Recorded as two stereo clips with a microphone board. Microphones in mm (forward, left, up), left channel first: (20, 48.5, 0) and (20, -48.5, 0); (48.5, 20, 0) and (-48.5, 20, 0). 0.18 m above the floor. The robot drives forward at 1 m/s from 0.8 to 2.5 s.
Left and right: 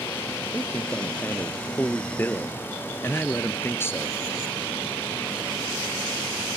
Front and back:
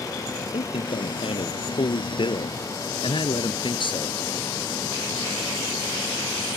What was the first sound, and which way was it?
A man speaking, 15° left.